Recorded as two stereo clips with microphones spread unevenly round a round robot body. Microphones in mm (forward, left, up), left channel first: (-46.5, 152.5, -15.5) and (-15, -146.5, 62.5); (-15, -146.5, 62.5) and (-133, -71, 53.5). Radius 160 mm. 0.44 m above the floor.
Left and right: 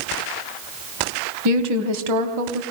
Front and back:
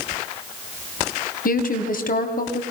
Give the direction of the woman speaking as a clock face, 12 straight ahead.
1 o'clock.